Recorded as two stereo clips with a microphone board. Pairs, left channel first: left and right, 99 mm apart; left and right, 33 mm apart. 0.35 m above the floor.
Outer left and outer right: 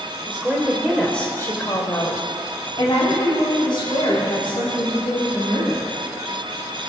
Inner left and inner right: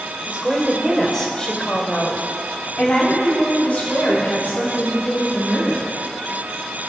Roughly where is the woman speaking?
Right.